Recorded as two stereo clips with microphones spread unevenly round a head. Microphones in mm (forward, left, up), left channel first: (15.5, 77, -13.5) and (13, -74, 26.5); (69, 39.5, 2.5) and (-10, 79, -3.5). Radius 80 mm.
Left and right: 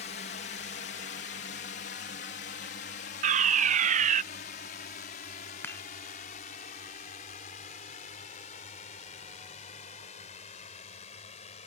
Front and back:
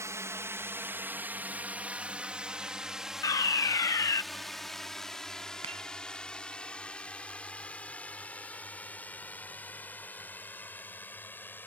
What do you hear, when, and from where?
0.0 s a drone: 105° left; by 11.7 s 40° left
3.2 s a fire alarm: 60° right
5.6 s dishes clattering: 170° left